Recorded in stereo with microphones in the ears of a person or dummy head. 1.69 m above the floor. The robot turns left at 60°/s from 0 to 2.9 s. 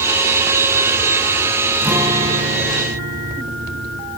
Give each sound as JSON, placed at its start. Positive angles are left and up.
{"t": 1.8, "sound": "a guitar", "azimuth_deg": -10, "distance_m": 1.1}